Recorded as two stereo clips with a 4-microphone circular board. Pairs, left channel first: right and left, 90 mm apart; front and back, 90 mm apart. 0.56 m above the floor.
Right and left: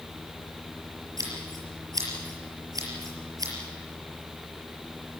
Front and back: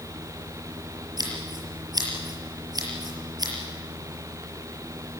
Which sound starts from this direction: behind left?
Scissors, at 1.2 s.